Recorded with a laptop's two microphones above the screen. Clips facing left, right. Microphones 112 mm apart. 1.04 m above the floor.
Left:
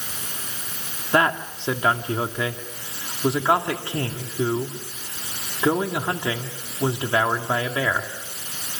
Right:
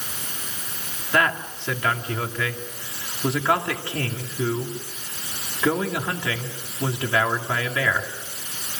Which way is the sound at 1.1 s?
25° left (ahead or behind).